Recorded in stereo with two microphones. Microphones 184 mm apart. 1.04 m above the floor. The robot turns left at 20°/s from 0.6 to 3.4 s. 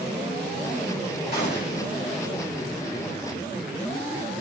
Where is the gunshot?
65° left (ahead or behind), 3 m; by 1.9 s 50° left (ahead or behind), 3 m.